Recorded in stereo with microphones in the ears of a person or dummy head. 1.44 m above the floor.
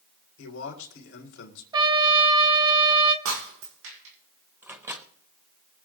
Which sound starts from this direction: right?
Breaking glass, at 3.2 s.